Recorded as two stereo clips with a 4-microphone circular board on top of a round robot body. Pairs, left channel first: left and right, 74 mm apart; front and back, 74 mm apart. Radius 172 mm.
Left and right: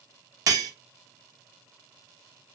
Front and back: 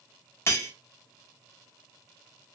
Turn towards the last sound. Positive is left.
turn(degrees=-55)